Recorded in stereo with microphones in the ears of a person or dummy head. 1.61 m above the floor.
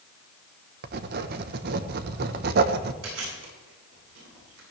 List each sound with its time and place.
0.8 s writing: 55° right (ahead or behind), 1.2 m
3.0 s chewing: 85° right, 9.5 m